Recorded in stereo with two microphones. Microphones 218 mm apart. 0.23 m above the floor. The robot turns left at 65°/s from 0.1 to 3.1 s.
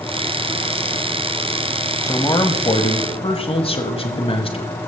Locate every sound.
2.0 s a man speaking: 15° left (ahead or behind), 1.1 m; by 4.9 s 25° left (ahead or behind), 1.1 m